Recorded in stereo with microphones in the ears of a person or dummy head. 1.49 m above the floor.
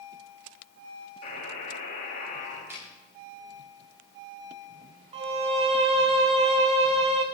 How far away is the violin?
About 1.1 m.